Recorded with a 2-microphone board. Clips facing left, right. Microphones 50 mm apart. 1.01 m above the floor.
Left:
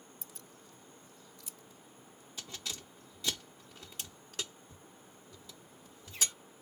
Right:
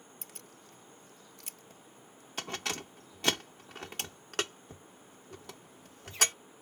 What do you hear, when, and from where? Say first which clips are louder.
0.2 s keys jangling: right 1 dB; 65° right (ahead or behind)